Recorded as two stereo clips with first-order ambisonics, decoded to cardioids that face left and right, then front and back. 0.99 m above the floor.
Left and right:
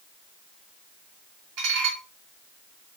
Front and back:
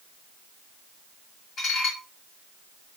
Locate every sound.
1.6 s dishes clattering: 65° right, 1.4 m